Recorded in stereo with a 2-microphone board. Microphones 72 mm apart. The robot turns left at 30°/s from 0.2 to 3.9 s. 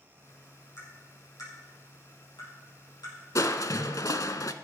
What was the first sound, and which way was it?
Tapping, 40° left (ahead or behind).